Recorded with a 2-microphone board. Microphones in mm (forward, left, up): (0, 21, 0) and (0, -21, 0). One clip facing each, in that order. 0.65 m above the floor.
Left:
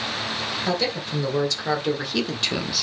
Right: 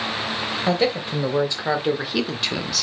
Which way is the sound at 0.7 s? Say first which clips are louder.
Right 5 dB; 25° right (ahead or behind).